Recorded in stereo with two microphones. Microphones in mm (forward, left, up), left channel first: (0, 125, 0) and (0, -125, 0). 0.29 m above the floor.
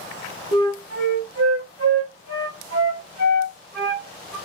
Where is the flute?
65° right (ahead or behind), 3 m.